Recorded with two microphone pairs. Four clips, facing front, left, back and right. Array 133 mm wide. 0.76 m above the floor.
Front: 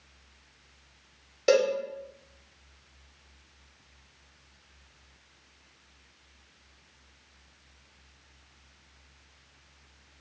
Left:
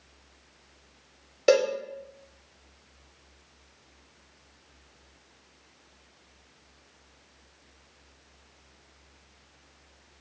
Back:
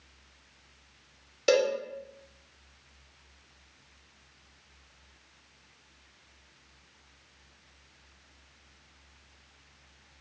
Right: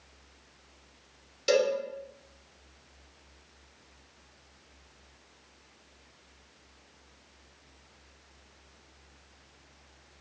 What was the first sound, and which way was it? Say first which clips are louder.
A cowbell: left 4 dB, front 2 dB; 80° left.